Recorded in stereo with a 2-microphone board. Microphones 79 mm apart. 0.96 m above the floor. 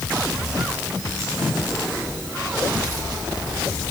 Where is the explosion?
I don't hear an explosion.